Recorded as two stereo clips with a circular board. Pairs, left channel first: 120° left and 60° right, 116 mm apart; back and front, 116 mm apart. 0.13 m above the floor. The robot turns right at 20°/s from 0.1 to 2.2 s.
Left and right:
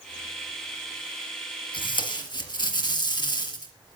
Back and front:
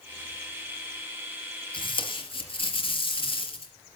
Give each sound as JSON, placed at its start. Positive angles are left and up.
{"t": 1.7, "sound": "tape being pulled", "azimuth_deg": 150, "distance_m": 3.0}